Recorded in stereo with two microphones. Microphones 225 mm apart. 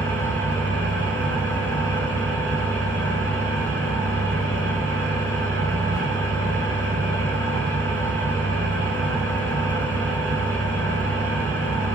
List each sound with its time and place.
0.0 s an engine running: 60° right (ahead or behind), 8.5 m